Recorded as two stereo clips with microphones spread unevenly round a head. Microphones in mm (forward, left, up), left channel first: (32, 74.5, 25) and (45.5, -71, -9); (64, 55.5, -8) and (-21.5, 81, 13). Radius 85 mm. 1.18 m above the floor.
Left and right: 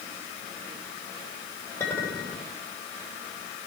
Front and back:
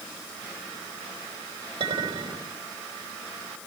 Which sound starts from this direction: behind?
A clink, at 1.8 s.